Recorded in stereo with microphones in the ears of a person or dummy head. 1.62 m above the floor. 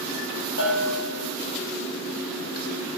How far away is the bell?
About 4 m.